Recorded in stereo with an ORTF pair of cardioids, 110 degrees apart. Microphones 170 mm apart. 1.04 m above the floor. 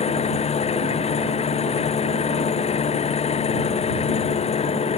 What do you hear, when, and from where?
0.0 s an engine running: 35° left